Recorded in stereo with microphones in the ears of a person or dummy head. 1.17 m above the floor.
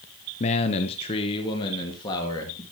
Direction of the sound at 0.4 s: 35° left (ahead or behind).